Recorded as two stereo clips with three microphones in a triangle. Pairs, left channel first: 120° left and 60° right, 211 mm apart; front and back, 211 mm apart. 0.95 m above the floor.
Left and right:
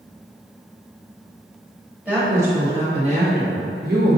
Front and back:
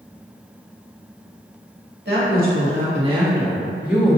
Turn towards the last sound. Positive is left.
turn(degrees=-90)